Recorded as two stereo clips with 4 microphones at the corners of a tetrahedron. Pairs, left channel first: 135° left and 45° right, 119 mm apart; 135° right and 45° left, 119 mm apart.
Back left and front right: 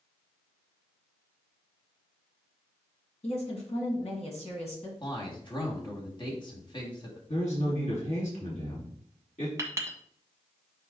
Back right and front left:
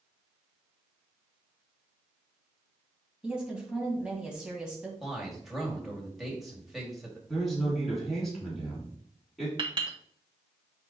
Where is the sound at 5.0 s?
135° left, 2.0 m.